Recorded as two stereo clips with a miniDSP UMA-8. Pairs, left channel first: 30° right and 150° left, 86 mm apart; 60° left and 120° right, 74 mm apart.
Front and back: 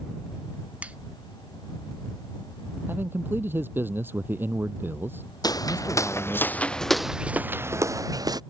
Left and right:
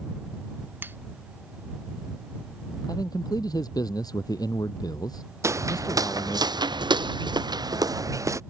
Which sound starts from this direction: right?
Footsteps, at 5.4 s.